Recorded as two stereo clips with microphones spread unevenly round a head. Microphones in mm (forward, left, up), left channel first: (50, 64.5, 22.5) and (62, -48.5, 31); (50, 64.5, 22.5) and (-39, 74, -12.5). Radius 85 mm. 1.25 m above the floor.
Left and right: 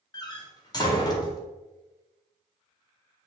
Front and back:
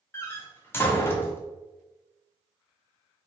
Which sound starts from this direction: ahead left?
A door slam, at 0.1 s.